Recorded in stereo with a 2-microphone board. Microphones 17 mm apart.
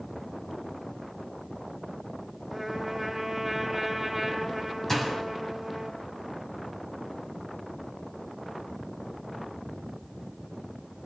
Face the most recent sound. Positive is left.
turn(degrees=20)  # may be behind; listen again after turning